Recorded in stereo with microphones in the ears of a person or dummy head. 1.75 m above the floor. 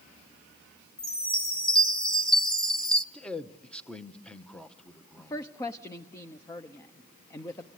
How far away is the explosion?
No explosion in this recording.